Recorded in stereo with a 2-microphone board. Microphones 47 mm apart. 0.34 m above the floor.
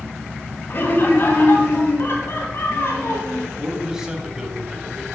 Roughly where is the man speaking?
Centre.